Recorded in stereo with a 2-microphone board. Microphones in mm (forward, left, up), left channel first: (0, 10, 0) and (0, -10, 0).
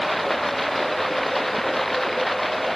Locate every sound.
0.0 s running water: 15° left (ahead or behind)